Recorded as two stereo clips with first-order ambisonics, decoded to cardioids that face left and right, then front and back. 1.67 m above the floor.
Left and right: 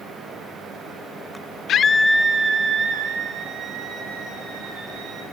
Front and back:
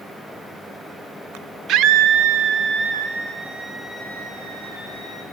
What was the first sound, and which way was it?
A scream, 135° left.